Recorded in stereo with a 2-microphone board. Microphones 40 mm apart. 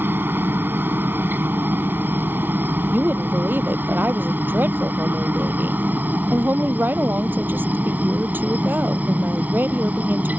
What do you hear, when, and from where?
0.0 s a helicopter: 55° right (ahead or behind); by 10.4 s 40° right (ahead or behind)
2.9 s a woman speaking: 55° right (ahead or behind)